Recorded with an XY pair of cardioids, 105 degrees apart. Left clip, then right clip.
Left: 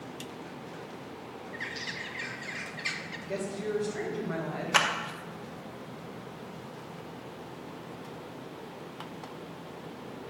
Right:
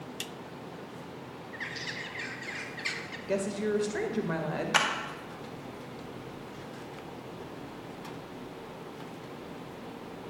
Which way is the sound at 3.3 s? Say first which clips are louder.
Right 3 dB; 60° right.